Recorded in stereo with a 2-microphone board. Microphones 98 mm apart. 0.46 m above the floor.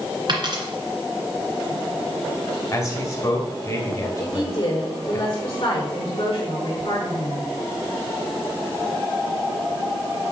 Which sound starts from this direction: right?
A dropped coin, at 0.3 s.